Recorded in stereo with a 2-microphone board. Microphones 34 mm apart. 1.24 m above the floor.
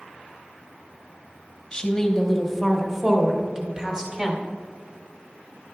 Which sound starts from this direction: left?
A woman speaking, at 1.7 s.